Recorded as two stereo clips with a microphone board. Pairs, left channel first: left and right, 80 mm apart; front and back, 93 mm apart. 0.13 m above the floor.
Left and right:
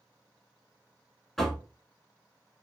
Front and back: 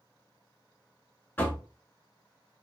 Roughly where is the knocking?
Ahead.